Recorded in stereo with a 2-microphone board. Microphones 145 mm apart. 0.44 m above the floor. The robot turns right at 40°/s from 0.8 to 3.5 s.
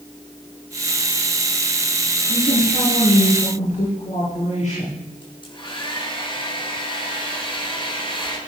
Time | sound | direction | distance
2.3 | a woman speaking | 80° left | 8.5 m
5.2 | a hair dryer | 35° left (ahead or behind) | 7 m